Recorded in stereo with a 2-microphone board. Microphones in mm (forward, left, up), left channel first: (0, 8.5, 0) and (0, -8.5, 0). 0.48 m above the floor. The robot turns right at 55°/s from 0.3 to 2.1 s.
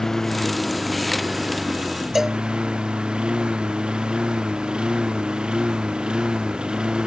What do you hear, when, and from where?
0.0 s a lawn mower: 25° left (ahead or behind); by 7.1 s 60° right (ahead or behind)
2.1 s a cowbell: 20° right (ahead or behind)